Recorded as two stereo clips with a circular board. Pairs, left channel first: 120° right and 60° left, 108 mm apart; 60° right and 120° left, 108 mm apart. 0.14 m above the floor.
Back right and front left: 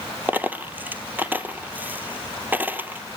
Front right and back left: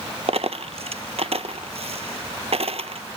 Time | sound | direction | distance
0.3 | a dropped coin | 130° left | 0.8 m